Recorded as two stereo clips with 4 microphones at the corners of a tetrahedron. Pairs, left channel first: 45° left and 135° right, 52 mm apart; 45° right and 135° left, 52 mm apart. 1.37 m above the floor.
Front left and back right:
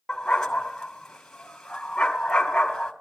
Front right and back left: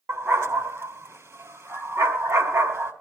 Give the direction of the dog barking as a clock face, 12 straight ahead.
8 o'clock.